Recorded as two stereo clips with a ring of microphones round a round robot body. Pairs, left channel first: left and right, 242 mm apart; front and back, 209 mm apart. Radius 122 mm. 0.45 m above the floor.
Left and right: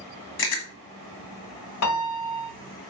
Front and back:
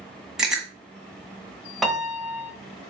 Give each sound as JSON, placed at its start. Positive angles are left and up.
{"t": 0.4, "sound": "chewing", "azimuth_deg": 95, "distance_m": 1.6}
{"t": 1.8, "sound": "a piano", "azimuth_deg": 90, "distance_m": 1.3}